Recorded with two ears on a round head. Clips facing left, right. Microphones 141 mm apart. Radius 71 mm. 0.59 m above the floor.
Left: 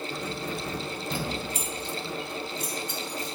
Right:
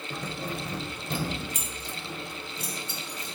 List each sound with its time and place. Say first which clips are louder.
0.1 s keys jangling: right 3 dB; 65° right (ahead or behind), 2 m; by 3.4 s 20° right (ahead or behind), 3 m